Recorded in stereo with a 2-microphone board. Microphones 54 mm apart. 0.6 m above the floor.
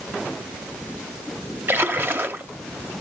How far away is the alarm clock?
I don't hear an alarm clock.